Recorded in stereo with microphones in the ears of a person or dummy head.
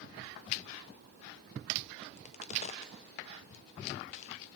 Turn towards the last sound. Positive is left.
turn(degrees=35)  # may be behind; listen again after turning